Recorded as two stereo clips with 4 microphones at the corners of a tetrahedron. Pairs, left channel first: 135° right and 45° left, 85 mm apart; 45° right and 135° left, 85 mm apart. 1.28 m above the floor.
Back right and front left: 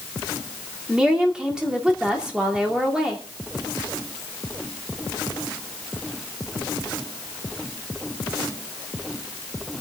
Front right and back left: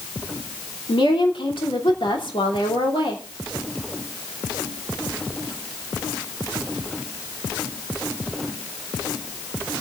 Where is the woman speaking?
35° right, 3 m.